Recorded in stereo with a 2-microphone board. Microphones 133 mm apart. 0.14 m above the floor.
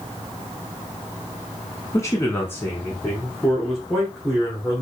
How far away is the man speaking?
About 1.1 m.